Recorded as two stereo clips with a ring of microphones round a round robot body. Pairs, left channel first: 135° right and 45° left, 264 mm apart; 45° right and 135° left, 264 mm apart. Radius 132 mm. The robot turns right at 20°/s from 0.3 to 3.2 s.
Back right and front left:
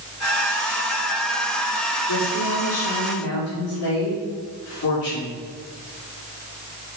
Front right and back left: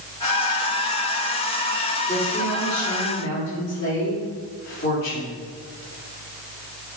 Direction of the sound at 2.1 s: 120° right.